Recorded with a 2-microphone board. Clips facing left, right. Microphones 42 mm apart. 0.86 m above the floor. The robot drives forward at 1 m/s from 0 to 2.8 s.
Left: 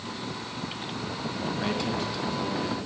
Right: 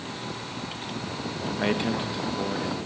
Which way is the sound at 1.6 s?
30° right (ahead or behind).